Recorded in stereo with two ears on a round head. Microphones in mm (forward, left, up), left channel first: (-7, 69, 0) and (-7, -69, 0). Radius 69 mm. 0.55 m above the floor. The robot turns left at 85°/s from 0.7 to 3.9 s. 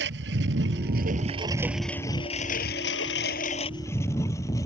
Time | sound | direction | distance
0.0 | a lawn mower | 80° right | ?